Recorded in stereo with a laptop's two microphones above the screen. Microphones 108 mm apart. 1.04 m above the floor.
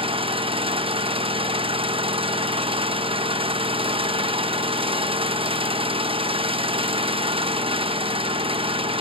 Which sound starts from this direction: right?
An engine running, at 0.0 s.